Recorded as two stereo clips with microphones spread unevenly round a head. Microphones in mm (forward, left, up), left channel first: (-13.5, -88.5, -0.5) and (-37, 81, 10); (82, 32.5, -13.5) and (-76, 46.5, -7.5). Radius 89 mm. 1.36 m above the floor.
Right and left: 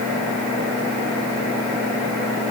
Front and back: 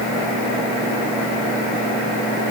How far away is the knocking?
I don't hear knocking.